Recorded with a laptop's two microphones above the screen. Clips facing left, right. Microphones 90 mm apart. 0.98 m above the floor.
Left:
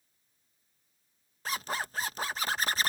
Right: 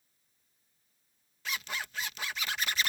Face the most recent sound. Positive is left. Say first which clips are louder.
# left 4 dB
turn(degrees=35)  # may be behind; listen again after turning